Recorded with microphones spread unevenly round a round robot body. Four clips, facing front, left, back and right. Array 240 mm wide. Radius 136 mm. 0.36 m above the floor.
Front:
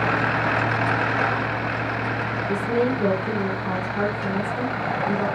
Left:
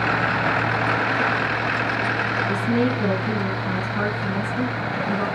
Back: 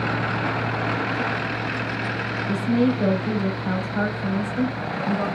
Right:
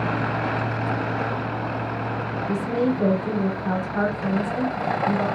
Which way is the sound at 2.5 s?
95° right.